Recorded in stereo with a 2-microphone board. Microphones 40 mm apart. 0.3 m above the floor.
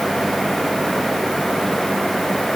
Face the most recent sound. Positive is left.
No sound to turn to.